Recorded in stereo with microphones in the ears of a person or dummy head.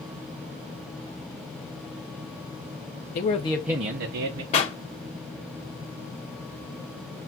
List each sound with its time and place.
3.1 s a man speaking: 30° left (ahead or behind), 0.9 m; by 4.4 s 65° right (ahead or behind), 1.0 m
4.5 s a pop: 30° left (ahead or behind), 1.3 m